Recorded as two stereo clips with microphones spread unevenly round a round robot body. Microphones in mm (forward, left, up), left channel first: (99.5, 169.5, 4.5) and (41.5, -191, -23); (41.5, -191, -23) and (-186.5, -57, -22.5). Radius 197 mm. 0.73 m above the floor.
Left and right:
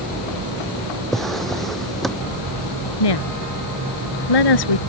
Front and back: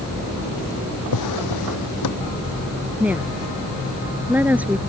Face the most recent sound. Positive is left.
turn(degrees=65)